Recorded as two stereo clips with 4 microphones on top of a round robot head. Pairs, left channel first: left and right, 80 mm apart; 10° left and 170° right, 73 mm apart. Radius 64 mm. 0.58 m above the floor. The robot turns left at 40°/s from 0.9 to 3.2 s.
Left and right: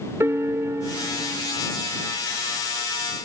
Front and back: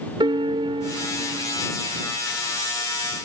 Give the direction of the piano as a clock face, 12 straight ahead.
5 o'clock.